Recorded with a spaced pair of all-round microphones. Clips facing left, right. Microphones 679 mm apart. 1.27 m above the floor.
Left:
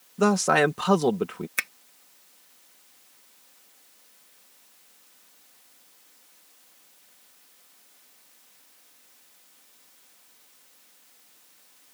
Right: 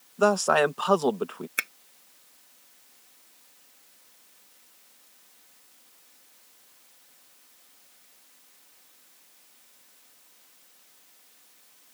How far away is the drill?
No drill in this recording.